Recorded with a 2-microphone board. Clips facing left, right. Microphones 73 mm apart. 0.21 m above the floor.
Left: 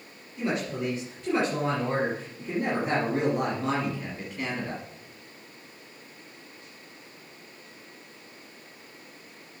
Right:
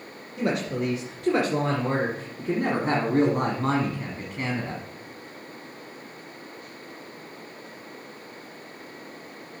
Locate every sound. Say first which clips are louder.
0.4 s a woman speaking: right 3 dB; 70° right (ahead or behind), 3.5 m; by 4.8 s 30° right (ahead or behind), 1.5 m